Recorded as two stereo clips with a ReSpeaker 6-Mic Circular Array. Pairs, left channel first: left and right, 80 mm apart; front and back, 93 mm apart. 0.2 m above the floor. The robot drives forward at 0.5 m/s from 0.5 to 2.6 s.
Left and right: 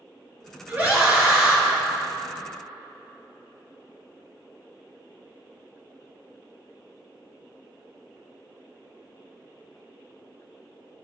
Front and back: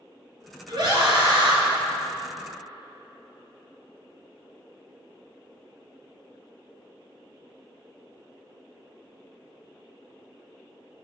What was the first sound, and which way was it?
A scream, 155° right.